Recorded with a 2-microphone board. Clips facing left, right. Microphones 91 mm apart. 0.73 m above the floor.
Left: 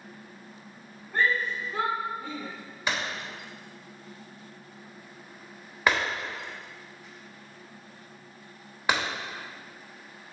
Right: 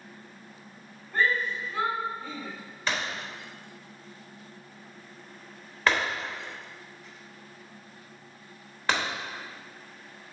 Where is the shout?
10° left (ahead or behind), 1.7 m; by 2.5 s 45° left (ahead or behind), 1.5 m.